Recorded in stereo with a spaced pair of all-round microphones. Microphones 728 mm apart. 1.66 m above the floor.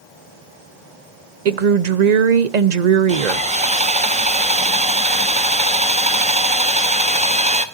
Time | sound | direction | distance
1.4 | a woman speaking | 65° right (ahead or behind) | 0.9 m
3.1 | sawing | 10° right (ahead or behind) | 1.1 m